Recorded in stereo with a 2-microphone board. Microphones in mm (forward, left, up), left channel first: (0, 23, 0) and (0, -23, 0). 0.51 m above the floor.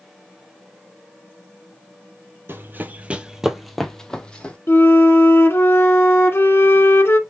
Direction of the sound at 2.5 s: 50° right (ahead or behind).